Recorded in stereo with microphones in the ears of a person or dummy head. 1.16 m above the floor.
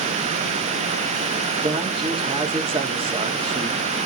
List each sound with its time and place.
1.6 s a man speaking: 30° right (ahead or behind), 1.7 m